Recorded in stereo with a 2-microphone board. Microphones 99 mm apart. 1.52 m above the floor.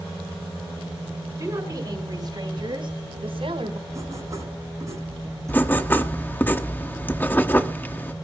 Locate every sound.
1.4 s a woman speaking: 35° right (ahead or behind), 5 m; by 3.8 s 70° right (ahead or behind), 4 m
3.9 s writing: 30° right (ahead or behind), 9.5 m
5.5 s writing: 20° left (ahead or behind), 1.0 m